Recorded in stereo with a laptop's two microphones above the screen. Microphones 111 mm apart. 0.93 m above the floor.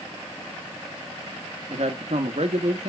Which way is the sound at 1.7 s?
65° right (ahead or behind).